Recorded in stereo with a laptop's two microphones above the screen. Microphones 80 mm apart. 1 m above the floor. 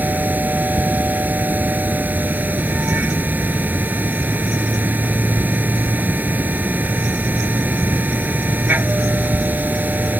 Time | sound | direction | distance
0.0 | a machine running | 20° right (ahead or behind) | ?